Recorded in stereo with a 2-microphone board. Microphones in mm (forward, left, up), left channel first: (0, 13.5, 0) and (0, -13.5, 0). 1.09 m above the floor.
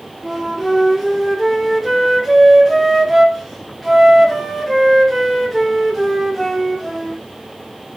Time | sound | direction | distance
0.2 | a flute | 5° right (ahead or behind) | 0.6 m